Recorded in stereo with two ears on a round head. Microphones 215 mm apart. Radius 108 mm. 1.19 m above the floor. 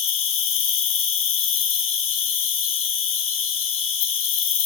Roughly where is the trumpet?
I don't hear a trumpet.